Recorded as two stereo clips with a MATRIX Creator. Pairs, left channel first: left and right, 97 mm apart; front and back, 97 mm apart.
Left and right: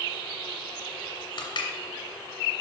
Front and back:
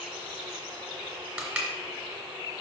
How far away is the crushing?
About 2.5 m.